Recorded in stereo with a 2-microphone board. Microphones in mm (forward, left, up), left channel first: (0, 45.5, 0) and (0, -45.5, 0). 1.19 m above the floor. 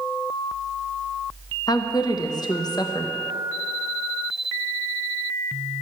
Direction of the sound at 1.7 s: 45° left (ahead or behind).